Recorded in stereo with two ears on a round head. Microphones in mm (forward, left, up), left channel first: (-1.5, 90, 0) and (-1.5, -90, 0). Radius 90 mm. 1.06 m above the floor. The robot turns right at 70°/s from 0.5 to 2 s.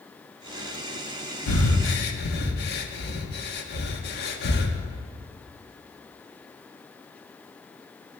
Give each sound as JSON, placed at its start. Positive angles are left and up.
{"t": 1.5, "sound": "breathing", "side_deg": 85, "distance_m": 1.5}